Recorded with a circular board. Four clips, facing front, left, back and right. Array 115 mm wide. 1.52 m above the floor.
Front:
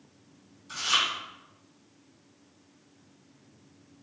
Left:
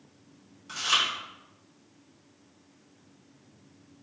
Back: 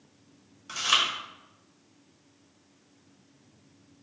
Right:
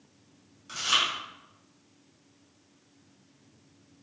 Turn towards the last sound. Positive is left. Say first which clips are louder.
# even, back 1 dB
turn(degrees=175)